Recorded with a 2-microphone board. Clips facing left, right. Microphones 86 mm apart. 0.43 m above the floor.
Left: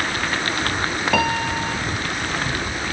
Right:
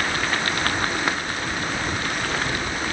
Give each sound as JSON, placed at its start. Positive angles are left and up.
{"t": 1.1, "sound": "a piano", "side_deg": 85}